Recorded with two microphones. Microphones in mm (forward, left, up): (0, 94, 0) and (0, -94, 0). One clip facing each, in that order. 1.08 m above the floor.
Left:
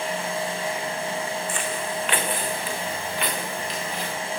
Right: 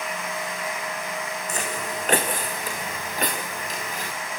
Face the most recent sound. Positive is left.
turn(degrees=-45)  # may be behind; listen again after turning